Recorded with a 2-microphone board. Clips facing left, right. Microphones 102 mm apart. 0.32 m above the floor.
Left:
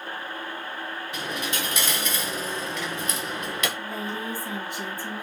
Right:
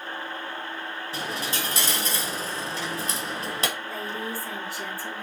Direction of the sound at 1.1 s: 35° right (ahead or behind).